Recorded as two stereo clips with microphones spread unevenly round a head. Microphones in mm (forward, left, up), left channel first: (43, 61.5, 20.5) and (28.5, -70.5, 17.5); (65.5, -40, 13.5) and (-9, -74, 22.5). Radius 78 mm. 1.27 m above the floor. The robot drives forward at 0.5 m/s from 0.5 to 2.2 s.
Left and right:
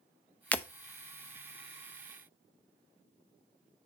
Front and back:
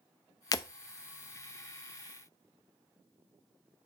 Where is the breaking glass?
15° left, 0.5 m.